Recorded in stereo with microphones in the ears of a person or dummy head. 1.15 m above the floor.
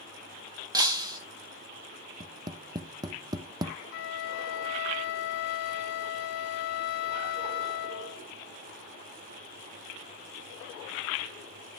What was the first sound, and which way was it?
Breaking glass, 20° right (ahead or behind).